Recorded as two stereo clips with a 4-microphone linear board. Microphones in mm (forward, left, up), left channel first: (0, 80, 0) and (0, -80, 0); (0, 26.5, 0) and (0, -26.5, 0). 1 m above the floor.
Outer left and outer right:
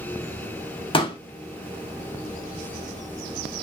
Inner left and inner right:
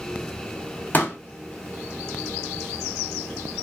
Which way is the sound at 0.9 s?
30° left (ahead or behind).